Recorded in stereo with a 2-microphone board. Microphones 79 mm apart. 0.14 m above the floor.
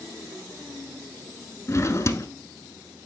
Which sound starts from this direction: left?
A drawer, at 1.7 s.